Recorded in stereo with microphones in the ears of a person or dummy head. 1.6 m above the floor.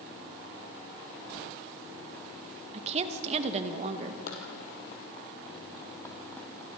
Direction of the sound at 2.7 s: 40° right (ahead or behind).